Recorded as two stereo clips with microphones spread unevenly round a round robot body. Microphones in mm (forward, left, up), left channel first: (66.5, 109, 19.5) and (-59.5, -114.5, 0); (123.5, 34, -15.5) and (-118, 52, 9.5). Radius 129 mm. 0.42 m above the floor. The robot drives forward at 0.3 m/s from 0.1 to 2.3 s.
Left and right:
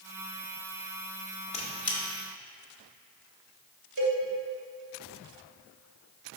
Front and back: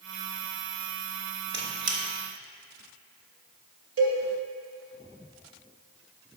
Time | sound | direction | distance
1.5 | a squeak | 130° left | 1.1 m
4.0 | a cowbell | 165° right | 1.7 m